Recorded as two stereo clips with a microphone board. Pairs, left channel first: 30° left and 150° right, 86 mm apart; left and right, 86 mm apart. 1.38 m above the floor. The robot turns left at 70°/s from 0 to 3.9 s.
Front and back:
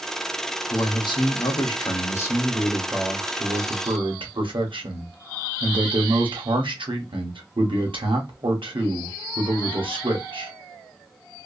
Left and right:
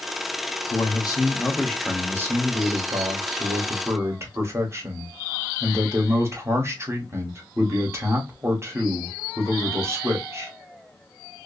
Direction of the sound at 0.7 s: 75° left.